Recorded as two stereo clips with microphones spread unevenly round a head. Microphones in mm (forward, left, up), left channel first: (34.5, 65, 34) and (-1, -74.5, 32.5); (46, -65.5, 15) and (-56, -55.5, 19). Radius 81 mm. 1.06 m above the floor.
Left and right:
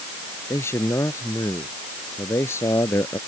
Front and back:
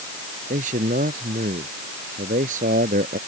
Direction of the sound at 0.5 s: 150° left.